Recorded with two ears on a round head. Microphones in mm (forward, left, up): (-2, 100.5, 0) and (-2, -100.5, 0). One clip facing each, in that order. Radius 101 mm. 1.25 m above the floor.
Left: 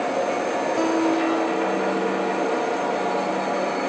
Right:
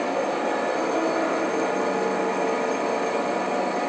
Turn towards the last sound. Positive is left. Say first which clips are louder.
# left 7 dB
turn(degrees=85)